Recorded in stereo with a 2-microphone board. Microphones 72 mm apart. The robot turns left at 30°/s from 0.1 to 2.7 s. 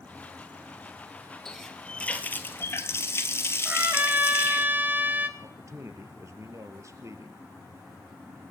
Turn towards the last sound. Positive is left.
turn(degrees=-45)  # may be behind; listen again after turning